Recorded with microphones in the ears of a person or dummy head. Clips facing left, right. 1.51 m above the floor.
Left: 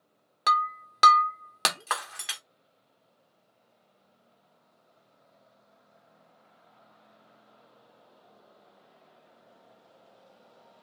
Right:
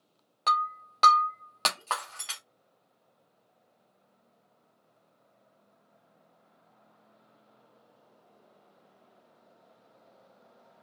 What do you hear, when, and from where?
0.5 s breaking glass: 20° left (ahead or behind), 0.9 m